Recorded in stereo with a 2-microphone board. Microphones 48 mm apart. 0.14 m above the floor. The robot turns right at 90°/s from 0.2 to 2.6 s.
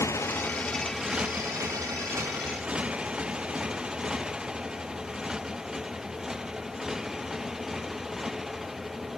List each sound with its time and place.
0.0 s a motorcycle: 75° left (ahead or behind); by 9.2 s 5° right (ahead or behind)